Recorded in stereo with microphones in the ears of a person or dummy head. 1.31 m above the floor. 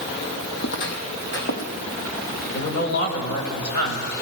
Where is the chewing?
No chewing in this recording.